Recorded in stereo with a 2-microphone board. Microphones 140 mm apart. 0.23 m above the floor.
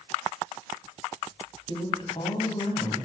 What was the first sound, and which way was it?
A woman speaking, 40° left (ahead or behind).